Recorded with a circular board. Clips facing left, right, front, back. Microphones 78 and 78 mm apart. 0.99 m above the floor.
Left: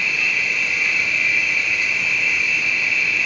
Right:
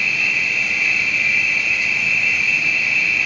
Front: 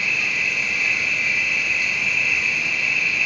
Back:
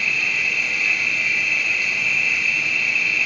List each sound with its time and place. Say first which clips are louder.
0.0 s an insect: right 1 dB, even; 45° left, 1.6 m